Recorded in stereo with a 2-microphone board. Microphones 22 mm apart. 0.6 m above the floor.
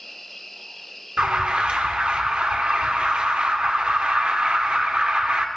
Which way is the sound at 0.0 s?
5° left (ahead or behind).